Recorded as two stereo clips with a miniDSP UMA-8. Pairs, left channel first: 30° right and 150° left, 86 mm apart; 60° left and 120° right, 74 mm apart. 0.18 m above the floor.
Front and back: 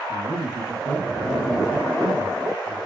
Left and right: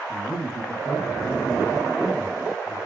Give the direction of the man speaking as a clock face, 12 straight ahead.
7 o'clock.